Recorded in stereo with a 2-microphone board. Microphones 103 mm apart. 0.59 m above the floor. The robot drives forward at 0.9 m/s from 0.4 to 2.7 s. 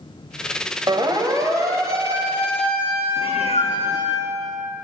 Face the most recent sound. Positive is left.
turn(degrees=80)